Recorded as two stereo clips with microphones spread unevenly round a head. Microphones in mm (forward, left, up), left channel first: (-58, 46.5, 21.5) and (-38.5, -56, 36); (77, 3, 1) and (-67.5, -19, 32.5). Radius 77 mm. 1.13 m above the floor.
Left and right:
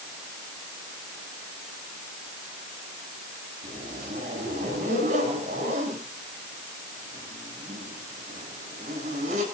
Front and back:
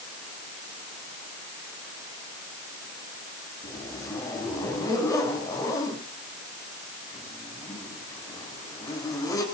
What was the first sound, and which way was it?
A zipper, 60° right.